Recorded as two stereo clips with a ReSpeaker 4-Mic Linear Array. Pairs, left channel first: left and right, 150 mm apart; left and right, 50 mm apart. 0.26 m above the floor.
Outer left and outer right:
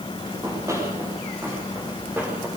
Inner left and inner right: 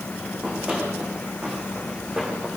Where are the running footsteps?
20° right (ahead or behind), 9.5 m; by 2.5 s 10° right (ahead or behind), 8.5 m.